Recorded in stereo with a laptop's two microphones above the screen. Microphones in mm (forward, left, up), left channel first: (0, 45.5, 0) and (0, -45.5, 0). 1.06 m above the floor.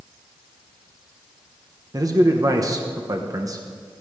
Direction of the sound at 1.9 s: 40° right (ahead or behind).